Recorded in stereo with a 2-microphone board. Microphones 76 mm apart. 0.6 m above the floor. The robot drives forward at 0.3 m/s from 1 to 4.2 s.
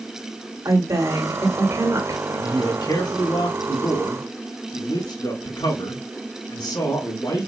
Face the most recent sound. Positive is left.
turn(degrees=55)  # may be behind; listen again after turning